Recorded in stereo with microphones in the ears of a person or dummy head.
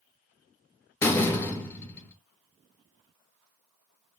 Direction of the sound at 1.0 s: 15° left (ahead or behind).